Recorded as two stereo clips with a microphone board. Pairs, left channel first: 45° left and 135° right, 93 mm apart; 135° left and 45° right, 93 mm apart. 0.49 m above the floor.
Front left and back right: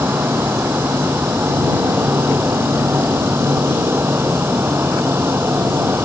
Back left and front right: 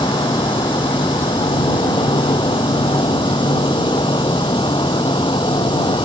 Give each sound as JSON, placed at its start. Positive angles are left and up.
{"t": 0.0, "sound": "an insect", "azimuth_deg": 160}